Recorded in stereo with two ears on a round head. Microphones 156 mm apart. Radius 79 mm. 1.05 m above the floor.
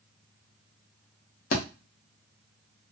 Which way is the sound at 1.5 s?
50° left (ahead or behind).